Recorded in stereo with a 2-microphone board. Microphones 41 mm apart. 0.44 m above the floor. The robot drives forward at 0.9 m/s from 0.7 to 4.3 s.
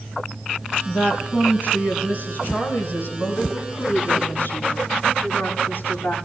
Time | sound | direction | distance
0.8 | a woman speaking | 45° left (ahead or behind) | 7 m